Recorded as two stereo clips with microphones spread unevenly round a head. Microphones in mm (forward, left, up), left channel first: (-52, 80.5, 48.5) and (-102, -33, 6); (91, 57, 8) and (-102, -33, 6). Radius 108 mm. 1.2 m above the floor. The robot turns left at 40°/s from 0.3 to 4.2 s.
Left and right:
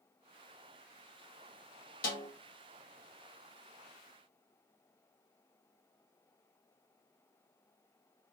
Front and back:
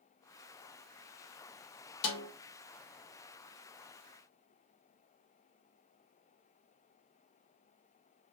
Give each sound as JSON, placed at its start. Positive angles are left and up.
{"t": 2.0, "sound": "a snare drum", "azimuth_deg": 35, "distance_m": 1.2}